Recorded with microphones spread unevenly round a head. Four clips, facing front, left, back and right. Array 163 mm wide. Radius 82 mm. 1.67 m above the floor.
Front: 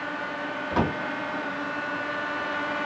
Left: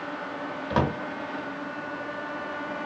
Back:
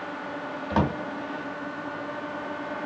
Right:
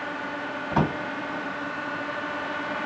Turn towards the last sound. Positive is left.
turn(degrees=105)